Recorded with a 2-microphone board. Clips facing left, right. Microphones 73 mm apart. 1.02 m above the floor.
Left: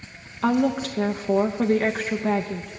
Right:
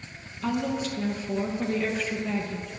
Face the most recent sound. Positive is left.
turn(degrees=50)  # may be behind; listen again after turning